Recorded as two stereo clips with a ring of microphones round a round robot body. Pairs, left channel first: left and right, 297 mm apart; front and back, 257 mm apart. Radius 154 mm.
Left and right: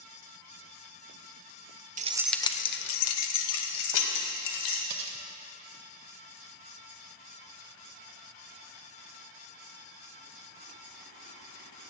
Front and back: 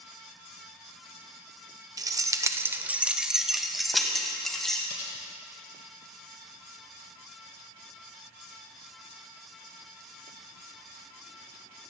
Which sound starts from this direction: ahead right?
Cutlery clinking, at 4.9 s.